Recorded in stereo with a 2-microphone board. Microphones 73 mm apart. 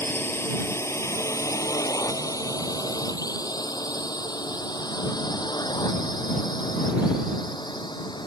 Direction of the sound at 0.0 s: 30° left (ahead or behind).